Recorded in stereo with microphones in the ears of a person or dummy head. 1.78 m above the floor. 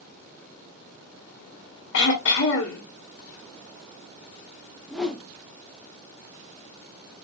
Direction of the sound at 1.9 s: 65° left (ahead or behind).